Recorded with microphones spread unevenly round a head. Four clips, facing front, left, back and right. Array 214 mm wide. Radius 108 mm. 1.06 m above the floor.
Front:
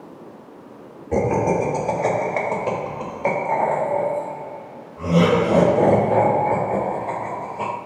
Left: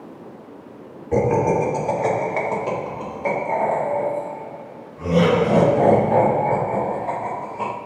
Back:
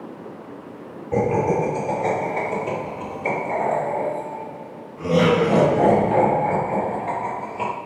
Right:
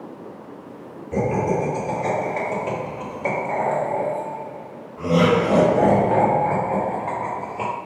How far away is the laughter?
About 2 m.